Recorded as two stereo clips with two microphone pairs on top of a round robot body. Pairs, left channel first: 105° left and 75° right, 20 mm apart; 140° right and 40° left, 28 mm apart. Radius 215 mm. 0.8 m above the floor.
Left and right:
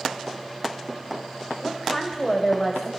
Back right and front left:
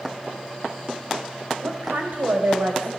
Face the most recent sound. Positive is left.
turn(degrees=30)